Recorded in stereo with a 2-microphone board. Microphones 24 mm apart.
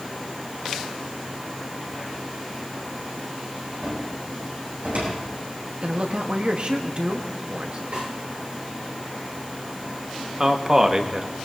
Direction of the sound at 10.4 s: 25° right (ahead or behind).